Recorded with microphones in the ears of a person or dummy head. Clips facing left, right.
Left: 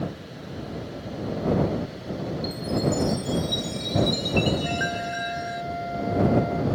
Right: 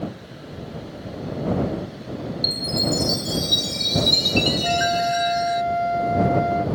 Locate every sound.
2.4 s a chime: 30° right (ahead or behind)
4.6 s a flute: 75° right (ahead or behind)